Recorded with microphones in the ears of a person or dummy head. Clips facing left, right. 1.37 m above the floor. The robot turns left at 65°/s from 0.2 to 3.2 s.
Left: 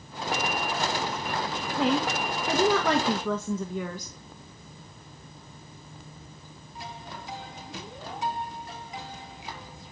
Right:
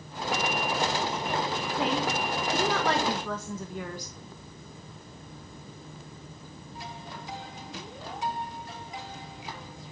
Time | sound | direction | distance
1.8 | a woman speaking | 165° left | 1.6 m